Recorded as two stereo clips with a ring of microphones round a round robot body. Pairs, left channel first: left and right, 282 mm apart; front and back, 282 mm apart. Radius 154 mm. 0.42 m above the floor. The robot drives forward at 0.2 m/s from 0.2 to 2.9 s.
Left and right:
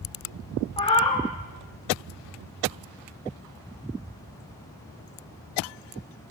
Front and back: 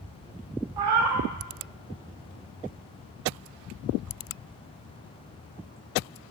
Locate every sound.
0.8 s a cat meowing: 160° left, 1.0 m; by 1.3 s 165° left, 1.1 m